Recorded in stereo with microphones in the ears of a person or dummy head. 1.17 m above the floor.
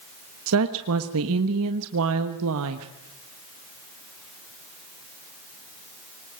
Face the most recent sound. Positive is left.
turn(degrees=-75)  # may be behind; listen again after turning